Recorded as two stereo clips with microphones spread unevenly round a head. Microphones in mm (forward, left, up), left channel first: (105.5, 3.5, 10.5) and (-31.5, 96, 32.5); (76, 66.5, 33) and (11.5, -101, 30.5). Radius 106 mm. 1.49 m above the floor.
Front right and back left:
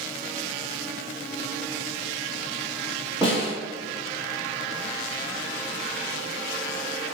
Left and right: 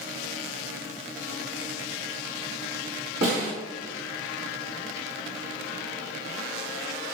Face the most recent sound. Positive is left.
turn(degrees=-140)